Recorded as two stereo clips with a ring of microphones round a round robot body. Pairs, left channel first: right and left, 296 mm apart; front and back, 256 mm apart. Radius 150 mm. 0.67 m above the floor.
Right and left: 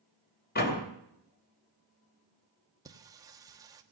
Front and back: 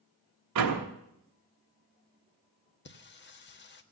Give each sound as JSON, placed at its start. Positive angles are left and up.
{"t": 0.6, "sound": "a door slam", "azimuth_deg": -150, "distance_m": 3.0}
{"t": 2.9, "sound": "singing", "azimuth_deg": 15, "distance_m": 1.4}